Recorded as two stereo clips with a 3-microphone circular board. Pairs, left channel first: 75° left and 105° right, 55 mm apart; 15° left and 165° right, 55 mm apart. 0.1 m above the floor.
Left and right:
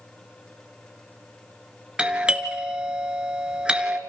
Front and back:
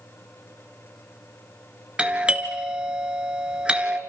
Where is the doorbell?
140° right, 1.7 m.